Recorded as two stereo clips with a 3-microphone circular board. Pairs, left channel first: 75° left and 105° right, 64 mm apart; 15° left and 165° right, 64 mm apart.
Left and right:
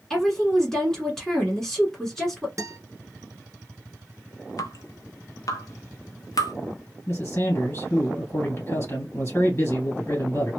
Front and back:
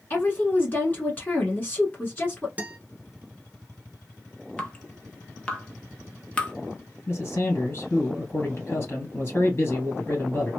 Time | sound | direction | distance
0.1 | a woman speaking | 5° left | 1.1 m
2.6 | a guitar | 105° right | 0.6 m
4.6 | dripping | 85° left | 0.6 m
7.1 | a man speaking | 40° left | 1.7 m